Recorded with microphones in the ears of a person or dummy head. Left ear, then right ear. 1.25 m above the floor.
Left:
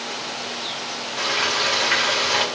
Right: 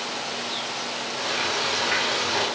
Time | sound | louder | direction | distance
1.2 | frying | left 5 dB | 25° left (ahead or behind) | 1.0 m